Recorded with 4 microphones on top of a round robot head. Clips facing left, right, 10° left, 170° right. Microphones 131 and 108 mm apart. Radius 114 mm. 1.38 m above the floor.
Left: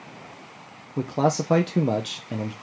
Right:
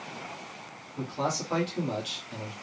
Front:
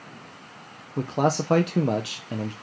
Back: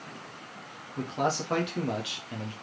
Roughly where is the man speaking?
Ahead left.